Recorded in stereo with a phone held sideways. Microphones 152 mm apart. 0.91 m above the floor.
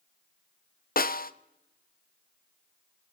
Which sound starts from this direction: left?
A snare drum, at 1.0 s.